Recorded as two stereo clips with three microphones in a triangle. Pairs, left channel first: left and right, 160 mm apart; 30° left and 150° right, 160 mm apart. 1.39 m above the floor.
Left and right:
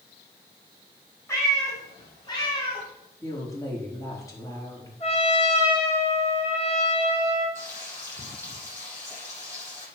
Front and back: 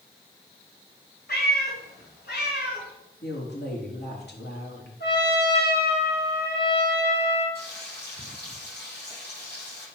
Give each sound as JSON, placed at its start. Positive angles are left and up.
{"t": 1.3, "sound": "a cat meowing", "azimuth_deg": 15, "distance_m": 4.5}
{"t": 3.2, "sound": "a woman speaking", "azimuth_deg": 20, "distance_m": 4.0}
{"t": 5.0, "sound": "a trumpet", "azimuth_deg": 35, "distance_m": 5.0}
{"t": 7.5, "sound": "frying", "azimuth_deg": 15, "distance_m": 7.0}